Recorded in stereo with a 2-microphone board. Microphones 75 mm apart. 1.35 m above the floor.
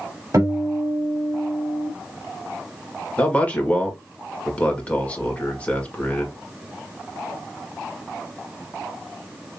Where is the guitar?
45° right (ahead or behind), 2.5 m.